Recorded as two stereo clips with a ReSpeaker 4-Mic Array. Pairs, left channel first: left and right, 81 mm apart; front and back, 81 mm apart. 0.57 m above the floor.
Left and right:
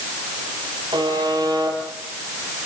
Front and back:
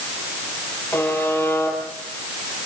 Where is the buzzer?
70° right, 10 m.